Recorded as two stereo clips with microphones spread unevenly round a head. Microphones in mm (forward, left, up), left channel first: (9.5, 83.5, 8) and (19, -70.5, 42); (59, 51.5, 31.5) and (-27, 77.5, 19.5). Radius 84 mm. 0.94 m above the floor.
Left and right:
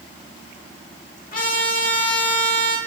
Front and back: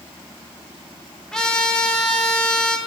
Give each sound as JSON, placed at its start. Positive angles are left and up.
{"t": 1.3, "sound": "a trumpet", "azimuth_deg": 70, "distance_m": 2.5}